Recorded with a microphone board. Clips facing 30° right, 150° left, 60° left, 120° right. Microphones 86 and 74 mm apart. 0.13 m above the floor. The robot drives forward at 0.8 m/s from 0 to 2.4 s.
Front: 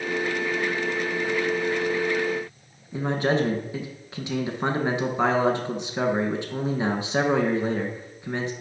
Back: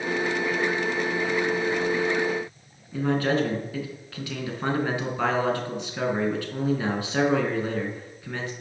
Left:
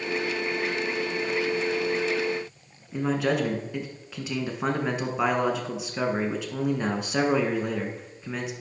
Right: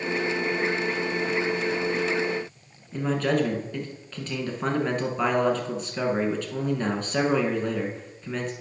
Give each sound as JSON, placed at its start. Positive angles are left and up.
{"t": 2.9, "sound": "a man speaking", "azimuth_deg": -5, "distance_m": 1.1}